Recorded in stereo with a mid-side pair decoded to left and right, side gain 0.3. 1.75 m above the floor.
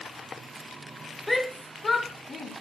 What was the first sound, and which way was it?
A shout, 10° left.